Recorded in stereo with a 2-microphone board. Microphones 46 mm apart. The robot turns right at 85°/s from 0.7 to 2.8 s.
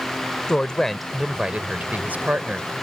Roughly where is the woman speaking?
Behind left.